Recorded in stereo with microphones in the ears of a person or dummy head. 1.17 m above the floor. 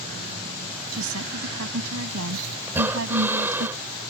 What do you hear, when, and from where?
0.9 s a woman speaking: 85° right; by 3.7 s 70° right (ahead or behind)
2.7 s breathing: 15° right (ahead or behind)